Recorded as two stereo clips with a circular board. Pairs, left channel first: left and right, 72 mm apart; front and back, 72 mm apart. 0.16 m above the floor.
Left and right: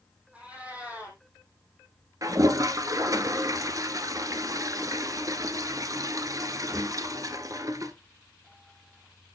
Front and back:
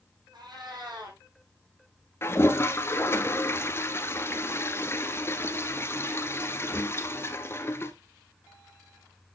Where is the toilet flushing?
55° right, 0.9 m.